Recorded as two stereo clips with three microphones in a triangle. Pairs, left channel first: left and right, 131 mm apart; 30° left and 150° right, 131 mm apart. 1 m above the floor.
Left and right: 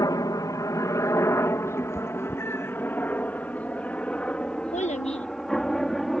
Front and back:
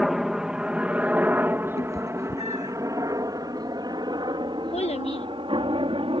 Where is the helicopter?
125° left; by 6.2 s 175° left.